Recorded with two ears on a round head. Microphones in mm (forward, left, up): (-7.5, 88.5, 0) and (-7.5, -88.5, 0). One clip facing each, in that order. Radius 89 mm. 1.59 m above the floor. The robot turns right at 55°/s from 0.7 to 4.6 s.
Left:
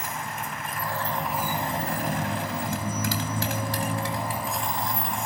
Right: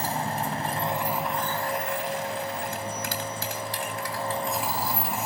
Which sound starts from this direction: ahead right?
A motorcycle, at 0.0 s.